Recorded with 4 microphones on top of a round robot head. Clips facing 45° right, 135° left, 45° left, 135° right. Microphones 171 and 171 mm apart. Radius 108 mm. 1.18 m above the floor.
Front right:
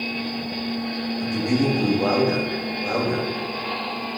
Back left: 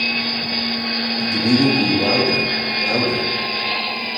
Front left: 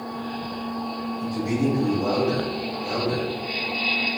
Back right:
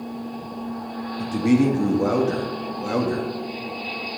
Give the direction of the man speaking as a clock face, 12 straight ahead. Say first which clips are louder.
Back left 5 dB, back right 6 dB; 5 o'clock.